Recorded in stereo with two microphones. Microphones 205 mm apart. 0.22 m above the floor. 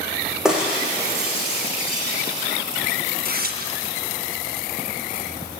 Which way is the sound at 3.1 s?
50° right (ahead or behind).